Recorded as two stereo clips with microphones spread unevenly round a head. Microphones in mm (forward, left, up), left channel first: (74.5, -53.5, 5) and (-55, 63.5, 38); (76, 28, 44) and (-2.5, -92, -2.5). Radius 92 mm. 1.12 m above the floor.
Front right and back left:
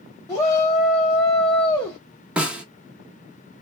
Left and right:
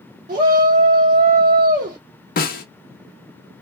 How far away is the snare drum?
About 0.9 m.